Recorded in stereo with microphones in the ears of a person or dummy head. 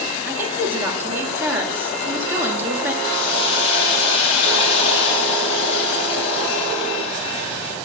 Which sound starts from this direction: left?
A hiss, at 3.0 s.